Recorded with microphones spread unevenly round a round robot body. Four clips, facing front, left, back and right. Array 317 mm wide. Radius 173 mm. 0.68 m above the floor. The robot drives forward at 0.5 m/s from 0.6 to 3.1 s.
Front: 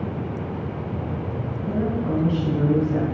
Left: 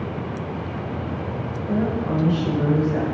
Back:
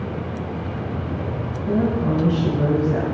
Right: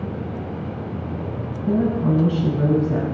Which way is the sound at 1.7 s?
105° right.